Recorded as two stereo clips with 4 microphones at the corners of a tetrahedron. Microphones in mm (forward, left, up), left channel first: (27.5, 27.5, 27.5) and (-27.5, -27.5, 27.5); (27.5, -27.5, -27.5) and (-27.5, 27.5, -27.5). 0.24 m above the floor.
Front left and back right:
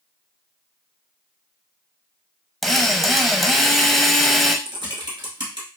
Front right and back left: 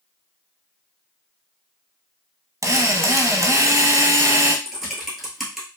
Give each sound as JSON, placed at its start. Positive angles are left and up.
{"t": 2.6, "sound": "a drill", "azimuth_deg": 135, "distance_m": 0.5}
{"t": 4.7, "sound": "typing on a keyboard", "azimuth_deg": -135, "distance_m": 1.3}